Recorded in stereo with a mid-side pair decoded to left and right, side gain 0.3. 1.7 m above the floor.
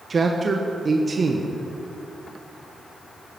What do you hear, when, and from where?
0.1 s a man speaking: 50° right, 1.2 m